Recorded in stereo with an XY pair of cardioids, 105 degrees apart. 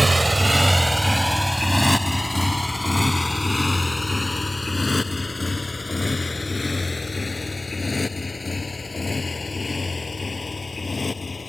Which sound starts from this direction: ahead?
A motorcycle, at 0.0 s.